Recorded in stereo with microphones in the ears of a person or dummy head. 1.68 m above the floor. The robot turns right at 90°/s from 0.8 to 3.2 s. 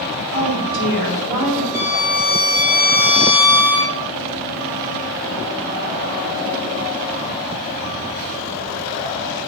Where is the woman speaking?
60° right, 5 m; by 1.6 s 15° left, 5 m.